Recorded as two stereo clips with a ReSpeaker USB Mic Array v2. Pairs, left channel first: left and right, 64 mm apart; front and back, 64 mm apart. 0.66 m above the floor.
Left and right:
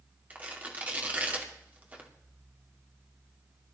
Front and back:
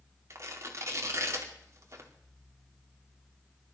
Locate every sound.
0.3 s tearing paper: 155° right, 2 m